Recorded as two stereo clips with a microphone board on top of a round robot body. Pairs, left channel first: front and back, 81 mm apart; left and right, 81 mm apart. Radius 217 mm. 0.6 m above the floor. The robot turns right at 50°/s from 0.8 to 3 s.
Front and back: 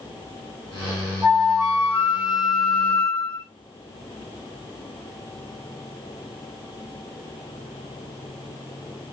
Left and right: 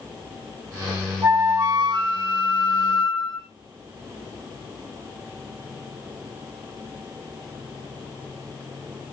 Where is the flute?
155° right, 1.9 m; by 3.5 s 65° right, 1.9 m.